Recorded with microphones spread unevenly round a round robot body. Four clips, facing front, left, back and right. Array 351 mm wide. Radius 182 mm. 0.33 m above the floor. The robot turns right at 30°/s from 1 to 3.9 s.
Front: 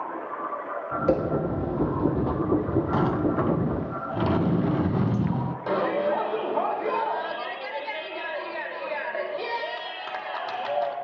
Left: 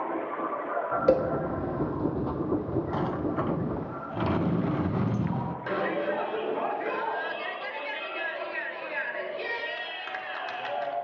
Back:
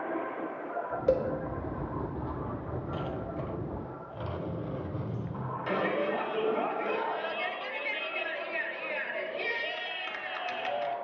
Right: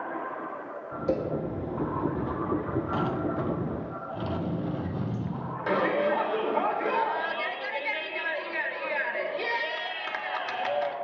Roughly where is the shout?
Ahead right.